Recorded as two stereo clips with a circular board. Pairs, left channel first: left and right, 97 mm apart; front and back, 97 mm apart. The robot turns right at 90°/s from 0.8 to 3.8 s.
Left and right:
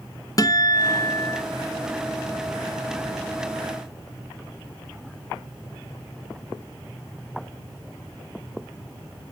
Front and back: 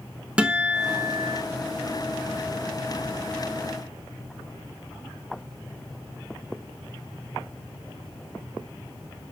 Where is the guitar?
105° left, 0.7 m; by 1.4 s 165° left, 0.7 m.